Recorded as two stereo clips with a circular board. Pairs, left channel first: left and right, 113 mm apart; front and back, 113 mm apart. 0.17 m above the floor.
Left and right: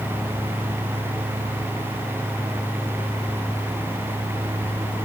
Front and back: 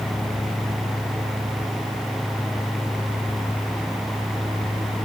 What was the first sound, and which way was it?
Only background noise.